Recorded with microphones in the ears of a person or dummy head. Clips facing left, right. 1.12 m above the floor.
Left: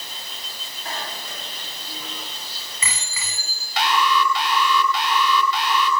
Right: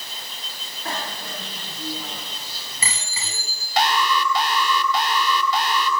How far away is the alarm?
About 4 m.